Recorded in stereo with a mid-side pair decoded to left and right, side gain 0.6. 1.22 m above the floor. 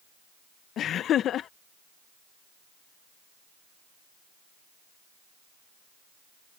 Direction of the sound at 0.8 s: 50° left.